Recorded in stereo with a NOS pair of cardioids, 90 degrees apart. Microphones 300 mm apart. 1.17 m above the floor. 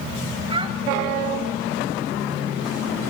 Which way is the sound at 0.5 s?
20° right.